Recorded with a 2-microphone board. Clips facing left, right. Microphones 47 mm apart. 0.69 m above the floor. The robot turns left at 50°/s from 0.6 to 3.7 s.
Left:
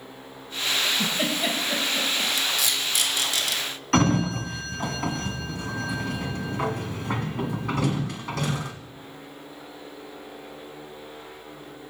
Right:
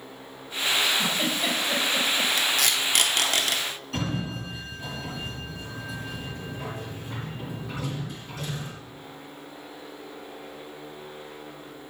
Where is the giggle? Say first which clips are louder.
Even; 30° left (ahead or behind), 4 m; by 2.3 s 40° right (ahead or behind), 4 m.